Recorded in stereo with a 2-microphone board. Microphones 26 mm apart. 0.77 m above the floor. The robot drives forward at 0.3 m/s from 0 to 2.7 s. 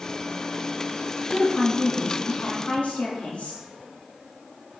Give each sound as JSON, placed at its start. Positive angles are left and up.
{"t": 1.3, "sound": "a woman speaking", "side_deg": 55, "distance_m": 1.5}